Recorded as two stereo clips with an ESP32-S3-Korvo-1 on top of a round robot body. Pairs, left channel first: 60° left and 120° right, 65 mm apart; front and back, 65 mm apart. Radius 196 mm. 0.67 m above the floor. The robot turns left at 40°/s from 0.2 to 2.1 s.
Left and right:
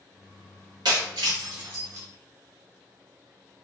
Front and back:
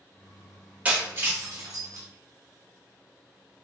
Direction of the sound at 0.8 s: 110° right.